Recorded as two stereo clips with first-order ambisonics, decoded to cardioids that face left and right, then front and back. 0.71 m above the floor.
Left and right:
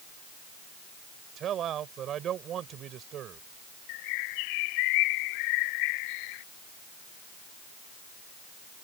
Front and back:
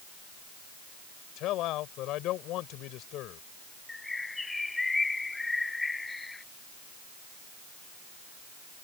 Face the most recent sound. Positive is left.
turn(degrees=80)